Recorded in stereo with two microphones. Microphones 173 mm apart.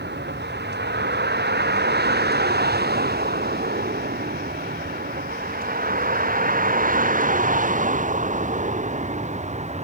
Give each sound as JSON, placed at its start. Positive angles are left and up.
{"t": 0.0, "sound": "a vehicle", "side_deg": -75}